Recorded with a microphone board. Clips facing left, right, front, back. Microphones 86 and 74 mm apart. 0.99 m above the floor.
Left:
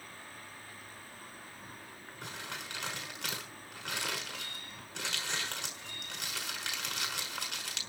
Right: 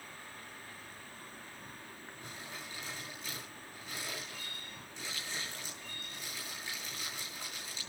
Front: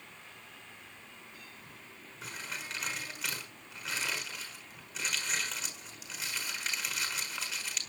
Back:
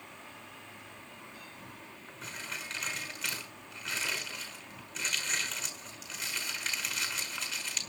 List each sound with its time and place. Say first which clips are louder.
0.0 s an insect: even, back 3 dB; 175° left, 3 m
2.2 s crumpling: left 5 dB, even; 90° left, 5.5 m